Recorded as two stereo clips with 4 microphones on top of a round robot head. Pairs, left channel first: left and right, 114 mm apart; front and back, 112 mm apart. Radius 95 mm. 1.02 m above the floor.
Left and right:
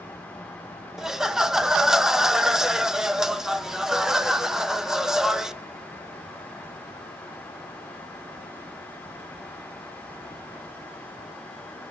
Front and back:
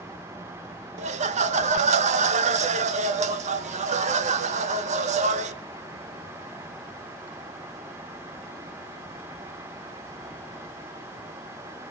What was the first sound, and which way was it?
Laughter, 175° right.